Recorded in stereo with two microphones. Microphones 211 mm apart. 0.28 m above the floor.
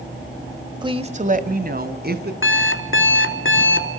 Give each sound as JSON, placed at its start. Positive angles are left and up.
{"t": 0.8, "sound": "a woman speaking", "side_deg": -20, "distance_m": 1.2}
{"t": 2.4, "sound": "an alarm clock", "side_deg": 70, "distance_m": 1.7}